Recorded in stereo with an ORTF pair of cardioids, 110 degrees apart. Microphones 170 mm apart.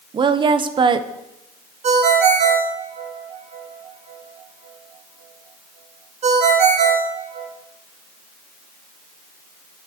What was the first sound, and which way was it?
A woman speaking, 30° right.